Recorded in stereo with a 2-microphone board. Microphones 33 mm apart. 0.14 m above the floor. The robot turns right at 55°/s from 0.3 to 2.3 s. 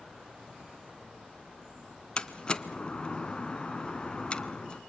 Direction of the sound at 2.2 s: 30° left (ahead or behind).